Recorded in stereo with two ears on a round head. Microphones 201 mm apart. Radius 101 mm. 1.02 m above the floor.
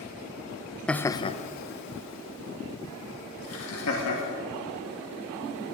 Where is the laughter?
5° left (ahead or behind), 0.6 m; by 4.4 s 65° left (ahead or behind), 1.8 m.